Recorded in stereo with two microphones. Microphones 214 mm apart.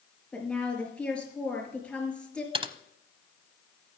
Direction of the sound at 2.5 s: 25° right (ahead or behind).